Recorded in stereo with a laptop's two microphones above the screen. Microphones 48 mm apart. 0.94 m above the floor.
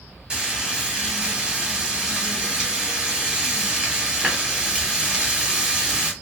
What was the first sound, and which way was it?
Frying, 20° right (ahead or behind).